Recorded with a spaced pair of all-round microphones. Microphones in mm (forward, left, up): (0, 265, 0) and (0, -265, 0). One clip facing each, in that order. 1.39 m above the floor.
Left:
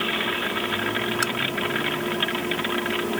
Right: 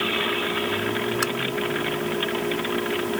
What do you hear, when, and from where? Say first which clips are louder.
1.2 s tapping: right 2 dB; 10° left (ahead or behind)